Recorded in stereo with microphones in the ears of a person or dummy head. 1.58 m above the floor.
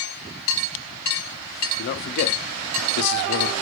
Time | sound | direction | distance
1.8 | a man speaking | 60° left (ahead or behind) | 0.6 m